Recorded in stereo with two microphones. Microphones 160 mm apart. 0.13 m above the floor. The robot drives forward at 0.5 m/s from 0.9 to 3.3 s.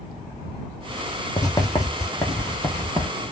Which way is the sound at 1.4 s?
25° left (ahead or behind).